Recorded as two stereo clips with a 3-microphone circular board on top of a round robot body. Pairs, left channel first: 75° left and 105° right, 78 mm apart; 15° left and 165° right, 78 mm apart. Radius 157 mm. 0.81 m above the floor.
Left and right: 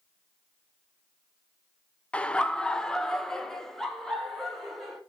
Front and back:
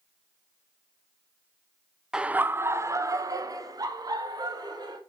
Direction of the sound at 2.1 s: 125° left.